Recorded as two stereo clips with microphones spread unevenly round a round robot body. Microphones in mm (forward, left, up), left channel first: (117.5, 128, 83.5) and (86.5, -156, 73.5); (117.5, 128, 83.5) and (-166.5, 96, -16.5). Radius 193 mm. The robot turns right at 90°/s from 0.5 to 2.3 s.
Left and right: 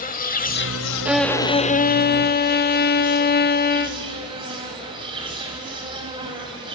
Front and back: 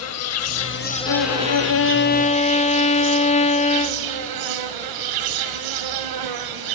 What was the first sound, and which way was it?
An insect, 25° left.